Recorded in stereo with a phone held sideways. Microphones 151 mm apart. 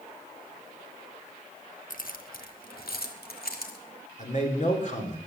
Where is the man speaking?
55° left (ahead or behind), 3 m.